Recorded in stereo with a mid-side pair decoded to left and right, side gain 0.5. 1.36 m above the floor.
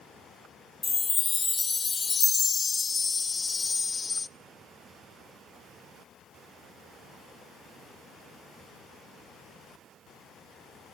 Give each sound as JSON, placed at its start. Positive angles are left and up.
{"t": 0.8, "sound": "a chime", "azimuth_deg": 30, "distance_m": 0.6}